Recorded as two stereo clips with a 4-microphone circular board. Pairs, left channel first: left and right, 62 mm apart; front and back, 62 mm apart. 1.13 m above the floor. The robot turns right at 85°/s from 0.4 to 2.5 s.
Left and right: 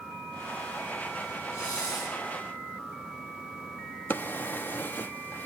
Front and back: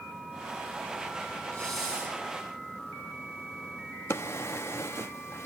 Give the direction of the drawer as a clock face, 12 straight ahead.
11 o'clock.